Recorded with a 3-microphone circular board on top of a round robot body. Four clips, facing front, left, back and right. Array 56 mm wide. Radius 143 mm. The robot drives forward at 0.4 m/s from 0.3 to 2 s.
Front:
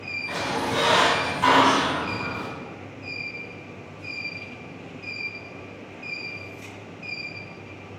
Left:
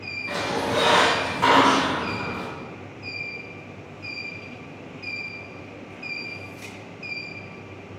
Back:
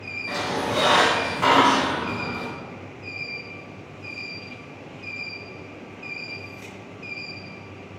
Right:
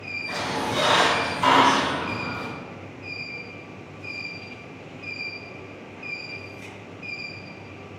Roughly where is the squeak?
Behind left.